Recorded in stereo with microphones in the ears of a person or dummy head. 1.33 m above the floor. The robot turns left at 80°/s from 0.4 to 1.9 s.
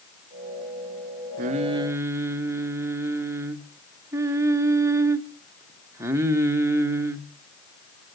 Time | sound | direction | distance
1.4 | singing | 120° right | 0.9 m